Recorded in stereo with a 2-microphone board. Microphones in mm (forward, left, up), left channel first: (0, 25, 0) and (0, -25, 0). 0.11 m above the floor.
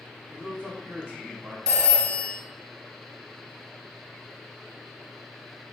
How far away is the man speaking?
About 1.7 m.